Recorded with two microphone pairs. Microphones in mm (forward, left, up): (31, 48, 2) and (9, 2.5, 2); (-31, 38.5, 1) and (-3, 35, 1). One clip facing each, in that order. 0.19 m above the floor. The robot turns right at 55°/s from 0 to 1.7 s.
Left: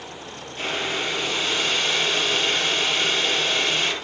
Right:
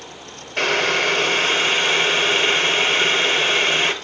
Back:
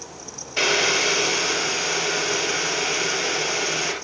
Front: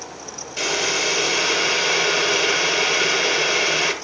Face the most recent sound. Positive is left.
turn(degrees=-70)